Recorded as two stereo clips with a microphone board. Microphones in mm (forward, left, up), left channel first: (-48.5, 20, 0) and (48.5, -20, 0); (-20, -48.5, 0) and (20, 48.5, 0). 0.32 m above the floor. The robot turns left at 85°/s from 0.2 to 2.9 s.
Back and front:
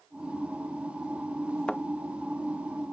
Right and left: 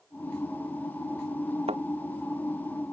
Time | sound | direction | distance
1.7 | a thud | 75° left | ?